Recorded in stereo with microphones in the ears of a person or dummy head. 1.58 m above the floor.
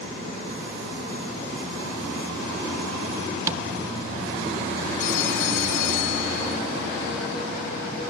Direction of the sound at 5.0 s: 50° left (ahead or behind).